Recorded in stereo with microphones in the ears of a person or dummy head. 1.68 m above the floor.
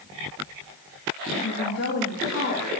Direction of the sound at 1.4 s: 75° left (ahead or behind).